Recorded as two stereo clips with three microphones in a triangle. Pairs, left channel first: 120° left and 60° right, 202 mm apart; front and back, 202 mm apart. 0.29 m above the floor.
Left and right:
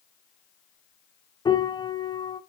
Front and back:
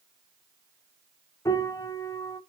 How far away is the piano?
About 1.0 m.